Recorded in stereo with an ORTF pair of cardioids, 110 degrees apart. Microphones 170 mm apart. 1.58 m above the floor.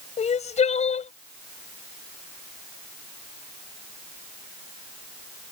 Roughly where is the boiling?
I don't hear boiling.